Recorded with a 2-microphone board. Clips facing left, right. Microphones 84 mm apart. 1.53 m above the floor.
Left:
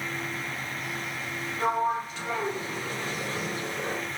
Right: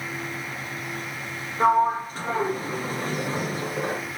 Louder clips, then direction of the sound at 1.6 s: Right 7 dB; 40° right (ahead or behind).